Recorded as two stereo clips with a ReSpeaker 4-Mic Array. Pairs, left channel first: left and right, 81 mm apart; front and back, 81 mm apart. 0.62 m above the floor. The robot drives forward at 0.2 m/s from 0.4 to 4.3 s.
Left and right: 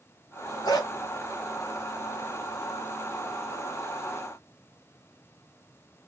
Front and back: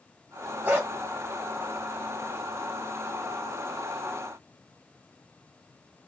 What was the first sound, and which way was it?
A dog barking, 115° left.